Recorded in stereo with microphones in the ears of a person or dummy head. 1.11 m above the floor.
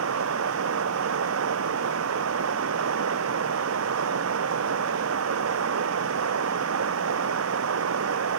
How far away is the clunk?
No clunk in this recording.